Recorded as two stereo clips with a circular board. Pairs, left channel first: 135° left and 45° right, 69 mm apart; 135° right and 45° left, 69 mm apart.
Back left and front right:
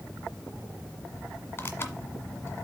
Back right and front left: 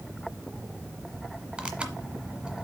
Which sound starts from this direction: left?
Tearing paper, at 1.6 s.